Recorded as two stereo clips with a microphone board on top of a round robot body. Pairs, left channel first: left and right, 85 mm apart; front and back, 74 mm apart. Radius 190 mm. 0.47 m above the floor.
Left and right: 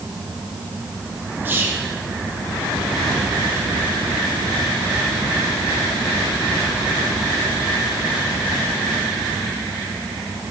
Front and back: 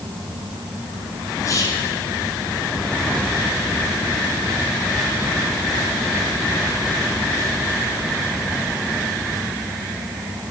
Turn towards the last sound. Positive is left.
turn(degrees=-25)